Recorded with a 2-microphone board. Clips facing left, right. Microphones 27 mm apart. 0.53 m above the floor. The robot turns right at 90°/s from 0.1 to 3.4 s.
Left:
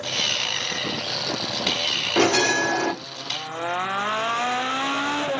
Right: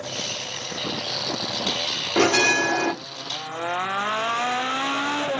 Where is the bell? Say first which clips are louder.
Right 2 dB; 20° right (ahead or behind), 1.3 m; by 2.9 s 25° right (ahead or behind), 1.3 m.